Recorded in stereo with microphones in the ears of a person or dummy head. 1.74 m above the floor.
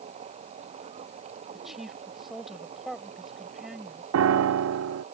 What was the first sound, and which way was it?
A machine running, 40° right (ahead or behind).